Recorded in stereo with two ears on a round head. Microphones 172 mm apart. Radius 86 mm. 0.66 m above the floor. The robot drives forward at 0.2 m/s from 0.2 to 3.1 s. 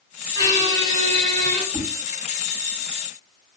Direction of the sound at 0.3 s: 20° left (ahead or behind).